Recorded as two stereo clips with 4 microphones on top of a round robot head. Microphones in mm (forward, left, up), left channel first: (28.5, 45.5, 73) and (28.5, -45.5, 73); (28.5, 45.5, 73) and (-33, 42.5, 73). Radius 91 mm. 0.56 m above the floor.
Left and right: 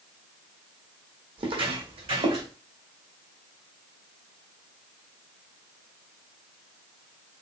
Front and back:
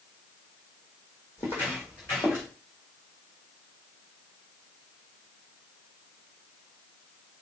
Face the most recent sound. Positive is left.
turn(degrees=-70)